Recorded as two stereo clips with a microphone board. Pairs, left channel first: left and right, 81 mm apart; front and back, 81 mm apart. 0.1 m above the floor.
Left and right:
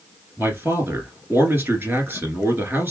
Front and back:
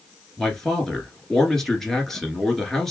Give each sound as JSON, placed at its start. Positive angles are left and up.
{"t": 0.4, "sound": "a man speaking", "azimuth_deg": -80, "distance_m": 1.2}